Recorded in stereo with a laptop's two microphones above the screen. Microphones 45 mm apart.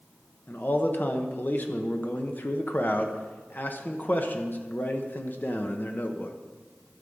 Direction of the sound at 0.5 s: 45° left (ahead or behind).